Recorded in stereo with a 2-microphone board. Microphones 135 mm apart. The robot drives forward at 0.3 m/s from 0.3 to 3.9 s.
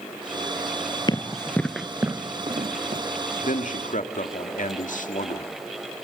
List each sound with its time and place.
1.1 s running footsteps: 30° left (ahead or behind), 1.3 m; by 3.0 s 55° right (ahead or behind), 1.5 m
3.4 s a man speaking: 75° left (ahead or behind), 1.9 m